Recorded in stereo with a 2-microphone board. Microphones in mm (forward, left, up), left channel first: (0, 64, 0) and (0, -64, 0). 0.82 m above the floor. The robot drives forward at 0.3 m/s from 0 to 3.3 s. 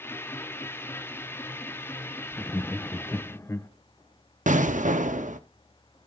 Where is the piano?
I don't hear a piano.